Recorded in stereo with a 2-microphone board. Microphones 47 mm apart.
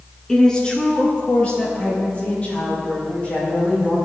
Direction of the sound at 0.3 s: 10° left (ahead or behind).